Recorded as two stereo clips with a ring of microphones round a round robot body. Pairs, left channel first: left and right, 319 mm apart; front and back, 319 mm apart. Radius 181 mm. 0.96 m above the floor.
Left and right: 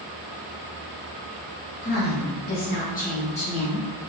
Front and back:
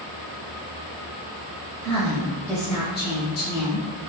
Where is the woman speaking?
140° left, 0.8 m; by 3.8 s 20° left, 1.1 m.